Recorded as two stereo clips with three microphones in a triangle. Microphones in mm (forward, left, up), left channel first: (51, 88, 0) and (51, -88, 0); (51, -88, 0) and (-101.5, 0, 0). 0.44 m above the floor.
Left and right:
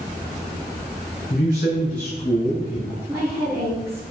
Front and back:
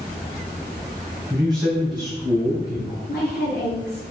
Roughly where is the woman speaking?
Ahead.